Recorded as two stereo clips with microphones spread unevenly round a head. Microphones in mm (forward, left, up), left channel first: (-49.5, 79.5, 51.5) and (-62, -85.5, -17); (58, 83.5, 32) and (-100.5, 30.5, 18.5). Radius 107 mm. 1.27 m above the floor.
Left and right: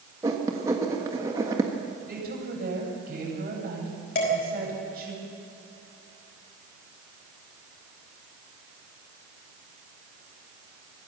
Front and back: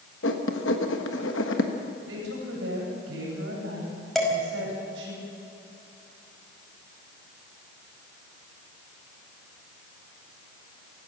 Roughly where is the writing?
Ahead.